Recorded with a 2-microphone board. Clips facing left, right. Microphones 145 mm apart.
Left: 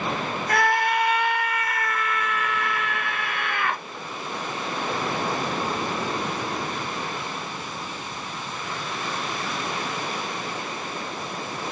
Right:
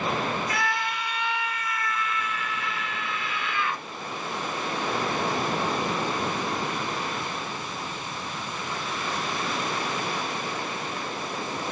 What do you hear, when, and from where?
0.5 s a scream: 60° left (ahead or behind), 1.0 m